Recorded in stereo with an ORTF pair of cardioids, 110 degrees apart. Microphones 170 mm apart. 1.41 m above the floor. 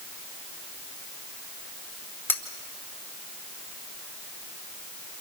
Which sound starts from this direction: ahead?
Cutlery clinking, at 2.3 s.